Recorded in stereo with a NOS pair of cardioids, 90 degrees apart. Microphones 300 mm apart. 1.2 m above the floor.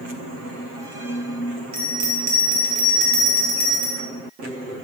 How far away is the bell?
About 1.7 m.